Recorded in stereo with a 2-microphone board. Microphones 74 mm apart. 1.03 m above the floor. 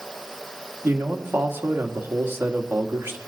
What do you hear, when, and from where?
0.8 s a man speaking: 30° right (ahead or behind), 1.7 m